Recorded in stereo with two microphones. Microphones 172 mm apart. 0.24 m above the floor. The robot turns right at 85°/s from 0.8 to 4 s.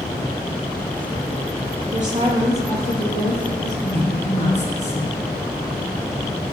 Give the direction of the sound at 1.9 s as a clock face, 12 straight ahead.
2 o'clock.